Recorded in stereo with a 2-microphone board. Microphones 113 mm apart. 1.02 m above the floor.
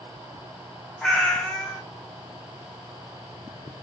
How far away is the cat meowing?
About 0.8 m.